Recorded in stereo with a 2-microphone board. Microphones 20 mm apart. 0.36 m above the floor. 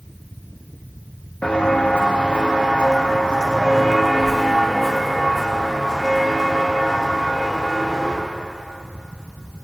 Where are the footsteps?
70° left (ahead or behind), 1.2 m; by 8.1 s centre (ahead or behind), 3.5 m.